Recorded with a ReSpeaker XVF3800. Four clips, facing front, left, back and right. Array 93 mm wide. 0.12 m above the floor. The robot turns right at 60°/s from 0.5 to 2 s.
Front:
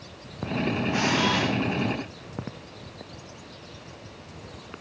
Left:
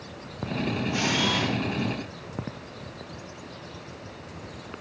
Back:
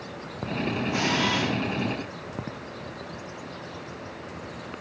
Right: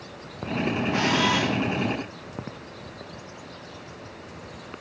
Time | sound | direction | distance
0.9 | a camera shutter | 45° right | 1.5 m